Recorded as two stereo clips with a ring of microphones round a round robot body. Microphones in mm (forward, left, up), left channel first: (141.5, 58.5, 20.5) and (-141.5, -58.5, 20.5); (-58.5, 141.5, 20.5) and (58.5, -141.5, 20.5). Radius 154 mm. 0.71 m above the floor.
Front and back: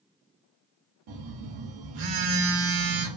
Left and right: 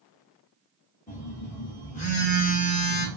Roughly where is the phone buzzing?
Behind.